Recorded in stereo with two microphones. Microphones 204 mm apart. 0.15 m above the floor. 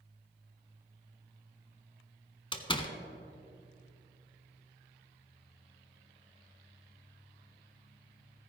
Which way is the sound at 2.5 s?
25° left (ahead or behind).